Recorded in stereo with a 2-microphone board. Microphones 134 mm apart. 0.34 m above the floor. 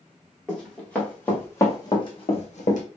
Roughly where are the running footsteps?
Centre.